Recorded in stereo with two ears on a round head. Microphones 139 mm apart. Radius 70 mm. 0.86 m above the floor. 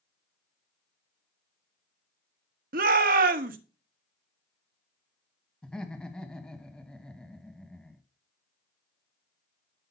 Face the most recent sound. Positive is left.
turn(degrees=5)  # may be behind; listen again after turning